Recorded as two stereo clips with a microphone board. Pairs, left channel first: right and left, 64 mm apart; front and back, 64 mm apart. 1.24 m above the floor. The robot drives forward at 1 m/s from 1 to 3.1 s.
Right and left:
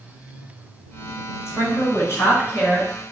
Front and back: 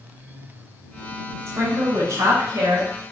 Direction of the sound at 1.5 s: 140° right.